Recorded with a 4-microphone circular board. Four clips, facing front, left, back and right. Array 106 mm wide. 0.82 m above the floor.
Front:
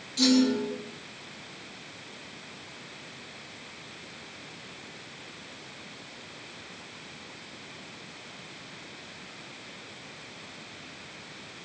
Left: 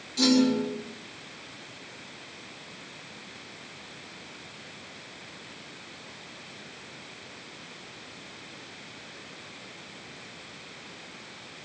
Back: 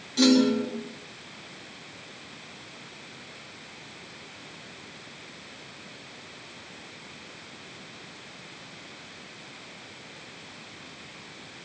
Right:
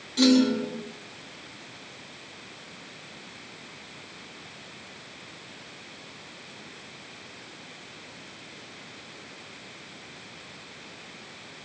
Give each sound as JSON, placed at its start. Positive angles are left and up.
{"t": 0.2, "sound": "a clunk", "azimuth_deg": -140, "distance_m": 3.5}